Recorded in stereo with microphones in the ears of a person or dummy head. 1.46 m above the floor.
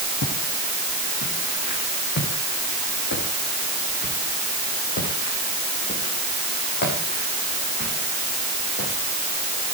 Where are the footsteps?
65° left (ahead or behind), 4 m; by 8.9 s 50° left (ahead or behind), 13 m.